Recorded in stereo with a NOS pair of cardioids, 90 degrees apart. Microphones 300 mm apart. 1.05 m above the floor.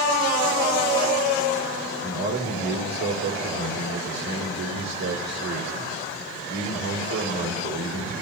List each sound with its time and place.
2.0 s a man speaking: 60° right, 2.5 m